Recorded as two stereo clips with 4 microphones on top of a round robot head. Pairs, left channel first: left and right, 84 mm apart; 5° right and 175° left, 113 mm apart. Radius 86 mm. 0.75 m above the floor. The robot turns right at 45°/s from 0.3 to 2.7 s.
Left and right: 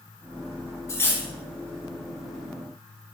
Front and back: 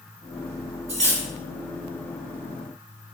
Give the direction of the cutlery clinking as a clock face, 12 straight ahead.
7 o'clock.